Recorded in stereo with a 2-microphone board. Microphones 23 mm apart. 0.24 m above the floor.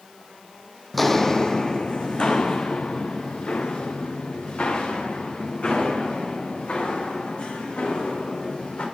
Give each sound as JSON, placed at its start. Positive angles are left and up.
{"t": 0.9, "sound": "footsteps", "side_deg": 5, "distance_m": 0.6}